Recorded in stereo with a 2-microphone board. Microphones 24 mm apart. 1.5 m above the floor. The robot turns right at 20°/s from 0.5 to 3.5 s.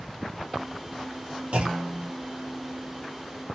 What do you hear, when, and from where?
1.5 s a clunk: 55° right (ahead or behind), 0.7 m; by 2.1 s 60° right (ahead or behind), 0.7 m